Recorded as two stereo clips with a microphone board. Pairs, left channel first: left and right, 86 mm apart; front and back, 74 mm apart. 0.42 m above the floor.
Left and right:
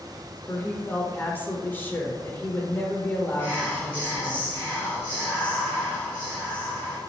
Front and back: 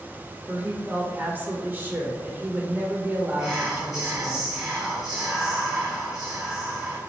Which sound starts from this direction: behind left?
A woman speaking, at 0.5 s.